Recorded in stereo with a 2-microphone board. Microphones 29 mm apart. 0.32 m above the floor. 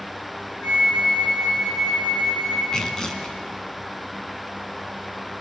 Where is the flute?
45° left (ahead or behind), 7.5 m.